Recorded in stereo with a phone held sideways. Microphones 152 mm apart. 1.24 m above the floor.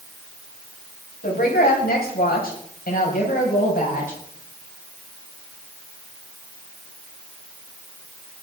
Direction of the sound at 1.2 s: 90° left.